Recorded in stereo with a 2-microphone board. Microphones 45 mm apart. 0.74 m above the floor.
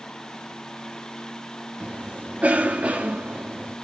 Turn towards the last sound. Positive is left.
turn(degrees=-35)  # may be behind; listen again after turning